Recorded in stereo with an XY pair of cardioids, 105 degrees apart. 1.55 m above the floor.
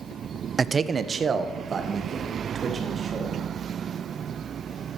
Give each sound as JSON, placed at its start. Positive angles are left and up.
{"t": 0.6, "sound": "a man speaking", "azimuth_deg": -30, "distance_m": 0.6}